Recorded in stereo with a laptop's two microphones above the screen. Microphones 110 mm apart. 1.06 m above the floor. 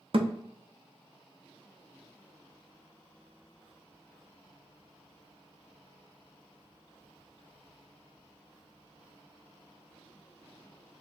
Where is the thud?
55° right (ahead or behind), 0.6 m.